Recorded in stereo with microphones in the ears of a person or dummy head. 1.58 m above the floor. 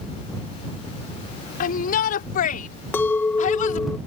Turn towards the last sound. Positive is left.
turn(degrees=15)  # may be behind; listen again after turning